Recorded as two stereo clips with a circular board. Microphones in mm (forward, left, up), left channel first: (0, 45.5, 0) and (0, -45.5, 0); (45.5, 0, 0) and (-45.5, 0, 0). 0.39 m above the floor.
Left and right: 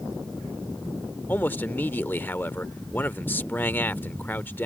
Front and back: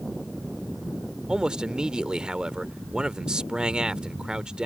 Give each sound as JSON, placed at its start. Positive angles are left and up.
{"t": 1.3, "sound": "a man speaking", "azimuth_deg": 110}